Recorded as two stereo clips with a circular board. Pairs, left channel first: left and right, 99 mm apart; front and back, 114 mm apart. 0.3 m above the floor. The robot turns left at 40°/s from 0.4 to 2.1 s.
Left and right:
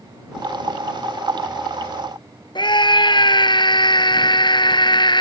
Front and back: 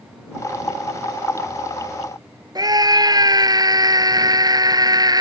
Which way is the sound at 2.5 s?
125° left.